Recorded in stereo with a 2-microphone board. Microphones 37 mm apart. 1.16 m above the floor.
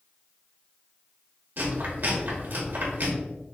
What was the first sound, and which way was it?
Chewing, 60° right (ahead or behind).